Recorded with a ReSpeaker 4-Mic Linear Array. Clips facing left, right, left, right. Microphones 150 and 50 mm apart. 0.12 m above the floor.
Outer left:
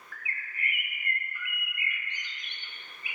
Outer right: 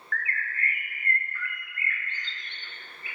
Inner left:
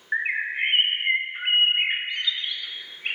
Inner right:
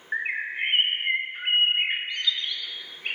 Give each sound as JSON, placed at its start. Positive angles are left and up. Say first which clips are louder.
{"t": 0.1, "sound": "a bird", "louder": "outer right 8 dB, inner left 3 dB", "side_deg": 15, "distance_m": 0.7}